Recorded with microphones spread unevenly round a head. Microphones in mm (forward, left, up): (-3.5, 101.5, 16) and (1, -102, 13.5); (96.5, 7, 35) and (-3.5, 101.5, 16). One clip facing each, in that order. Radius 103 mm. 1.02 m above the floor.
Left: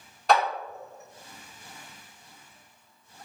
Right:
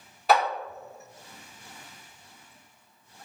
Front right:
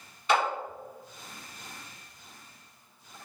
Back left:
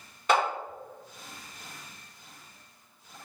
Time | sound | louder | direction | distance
0.3 | a clap | even, back left 1 dB | 175° right | 1.1 m